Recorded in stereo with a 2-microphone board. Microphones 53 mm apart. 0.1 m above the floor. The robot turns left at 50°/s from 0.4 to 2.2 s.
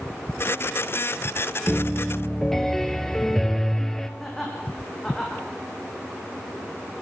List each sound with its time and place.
1.7 s a piano: 15° right (ahead or behind), 1.3 m; by 4.1 s 5° left (ahead or behind), 1.3 m
4.2 s laughter: 5° left (ahead or behind), 6 m